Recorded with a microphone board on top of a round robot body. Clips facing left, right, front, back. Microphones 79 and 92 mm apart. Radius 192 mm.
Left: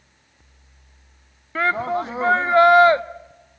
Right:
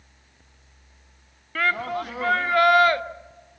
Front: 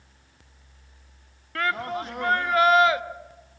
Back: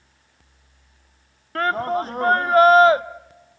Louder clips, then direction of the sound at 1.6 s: Left 4 dB, back 6 dB; 145° left.